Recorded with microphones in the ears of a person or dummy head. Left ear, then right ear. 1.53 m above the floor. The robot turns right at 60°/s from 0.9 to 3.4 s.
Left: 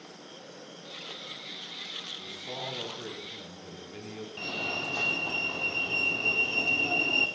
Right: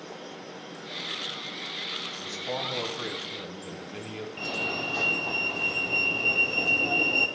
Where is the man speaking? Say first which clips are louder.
Right 5 dB; 90° right, 3 m; by 4.3 s 20° right, 3 m.